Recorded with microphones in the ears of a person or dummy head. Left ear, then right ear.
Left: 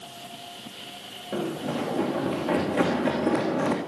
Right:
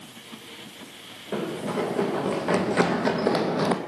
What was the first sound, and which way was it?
Running footsteps, 75° right (ahead or behind).